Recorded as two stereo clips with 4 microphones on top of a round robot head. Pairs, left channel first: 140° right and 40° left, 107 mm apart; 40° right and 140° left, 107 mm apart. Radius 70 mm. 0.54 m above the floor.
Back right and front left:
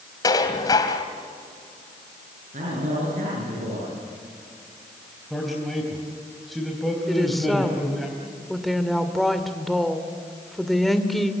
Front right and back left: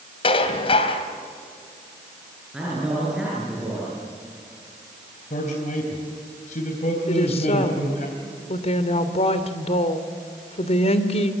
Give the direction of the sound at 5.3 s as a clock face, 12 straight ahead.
2 o'clock.